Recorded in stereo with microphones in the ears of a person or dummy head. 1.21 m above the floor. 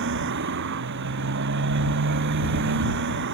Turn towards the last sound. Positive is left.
turn(degrees=-60)  # may be behind; listen again after turning